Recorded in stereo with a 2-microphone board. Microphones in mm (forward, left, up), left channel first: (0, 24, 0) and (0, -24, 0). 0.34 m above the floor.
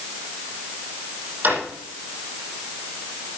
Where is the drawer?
40° right (ahead or behind), 8 m.